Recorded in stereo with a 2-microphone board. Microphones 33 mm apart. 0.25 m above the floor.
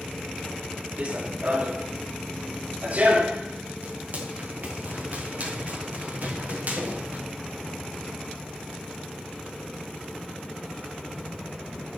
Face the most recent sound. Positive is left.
turn(degrees=-55)  # may be behind; listen again after turning